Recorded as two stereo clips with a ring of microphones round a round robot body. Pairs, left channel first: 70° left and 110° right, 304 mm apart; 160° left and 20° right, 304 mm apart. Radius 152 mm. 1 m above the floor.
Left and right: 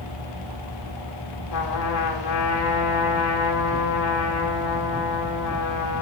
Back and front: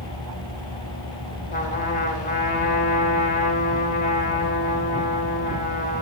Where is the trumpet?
95° left, 5 m.